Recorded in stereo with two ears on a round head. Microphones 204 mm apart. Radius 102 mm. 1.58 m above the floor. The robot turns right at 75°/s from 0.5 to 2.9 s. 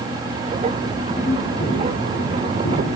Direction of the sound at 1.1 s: Centre (ahead or behind).